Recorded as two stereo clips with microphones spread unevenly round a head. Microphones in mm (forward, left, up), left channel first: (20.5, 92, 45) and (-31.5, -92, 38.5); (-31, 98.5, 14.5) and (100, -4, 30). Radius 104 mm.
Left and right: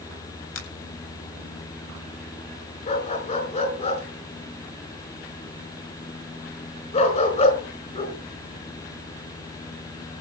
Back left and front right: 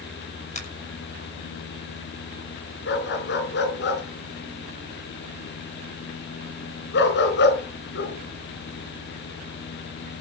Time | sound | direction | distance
0.6 | a finger snap | 95° left | 8 m
2.9 | a dog barking | 130° left | 4.5 m